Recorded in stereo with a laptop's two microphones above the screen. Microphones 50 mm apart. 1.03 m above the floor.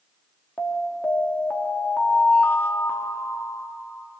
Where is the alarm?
45° left (ahead or behind), 2.0 m.